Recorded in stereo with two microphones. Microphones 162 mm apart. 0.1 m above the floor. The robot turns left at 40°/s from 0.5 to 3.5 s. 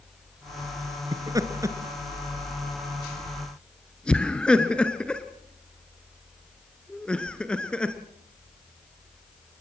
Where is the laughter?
20° right (ahead or behind), 1.2 m; by 8.0 s 5° left (ahead or behind), 1.2 m.